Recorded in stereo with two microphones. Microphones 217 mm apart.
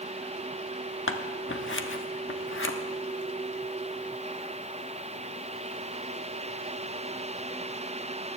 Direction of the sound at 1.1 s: 65° left (ahead or behind).